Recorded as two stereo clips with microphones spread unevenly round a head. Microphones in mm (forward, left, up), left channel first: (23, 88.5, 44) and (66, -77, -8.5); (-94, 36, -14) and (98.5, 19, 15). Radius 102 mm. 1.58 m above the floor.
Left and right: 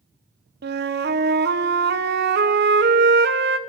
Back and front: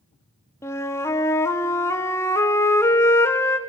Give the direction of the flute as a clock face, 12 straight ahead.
4 o'clock.